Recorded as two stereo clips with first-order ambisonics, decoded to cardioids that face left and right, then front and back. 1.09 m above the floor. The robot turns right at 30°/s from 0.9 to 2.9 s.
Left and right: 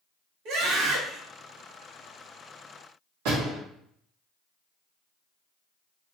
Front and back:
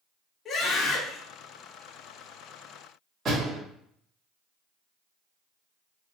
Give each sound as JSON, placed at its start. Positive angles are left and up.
{"t": 0.5, "sound": "a scream", "azimuth_deg": -70, "distance_m": 1.6}
{"t": 3.2, "sound": "a door slam", "azimuth_deg": -110, "distance_m": 2.0}